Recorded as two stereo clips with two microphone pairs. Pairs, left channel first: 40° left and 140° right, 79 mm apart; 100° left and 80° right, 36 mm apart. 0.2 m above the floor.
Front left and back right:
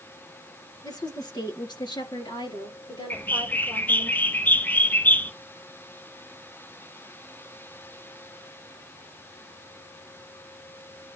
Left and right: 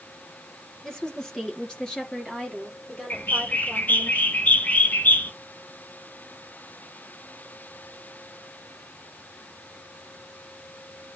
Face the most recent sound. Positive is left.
turn(degrees=105)